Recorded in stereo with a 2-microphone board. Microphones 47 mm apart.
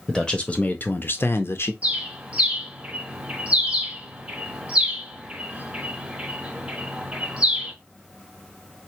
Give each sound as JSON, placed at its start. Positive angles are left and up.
{"t": 0.1, "sound": "a man speaking", "side_deg": 10, "distance_m": 0.7}
{"t": 1.8, "sound": "a bird", "side_deg": -25, "distance_m": 0.7}